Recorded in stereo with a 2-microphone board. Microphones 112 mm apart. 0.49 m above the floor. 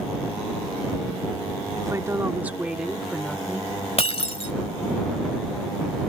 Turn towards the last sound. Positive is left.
turn(degrees=60)  # may be behind; listen again after turning